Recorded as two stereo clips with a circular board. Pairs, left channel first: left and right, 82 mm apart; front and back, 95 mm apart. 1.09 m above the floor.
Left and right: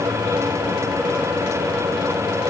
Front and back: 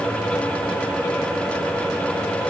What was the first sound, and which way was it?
Only background noise.